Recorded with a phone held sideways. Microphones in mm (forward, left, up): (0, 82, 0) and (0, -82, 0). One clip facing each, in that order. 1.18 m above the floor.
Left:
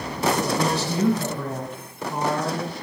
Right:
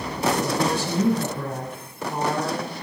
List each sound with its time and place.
0.4 s a woman speaking: 50° right (ahead or behind), 9 m